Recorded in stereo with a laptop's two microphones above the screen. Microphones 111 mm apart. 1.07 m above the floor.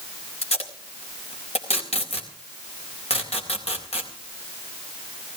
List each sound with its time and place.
0.4 s tape being pulled: 90° left, 4 m